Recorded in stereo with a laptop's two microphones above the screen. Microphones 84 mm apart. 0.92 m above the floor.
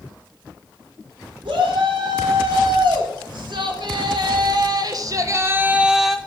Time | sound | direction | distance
1.4 | a shout | 80° right | 3.5 m